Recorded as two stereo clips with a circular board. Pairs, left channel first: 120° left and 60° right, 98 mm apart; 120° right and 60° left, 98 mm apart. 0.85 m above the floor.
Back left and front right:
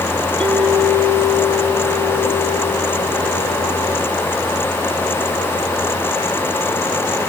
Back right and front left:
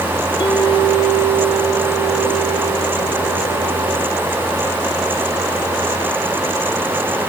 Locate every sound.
0.4 s a clink: 160° right, 6.5 m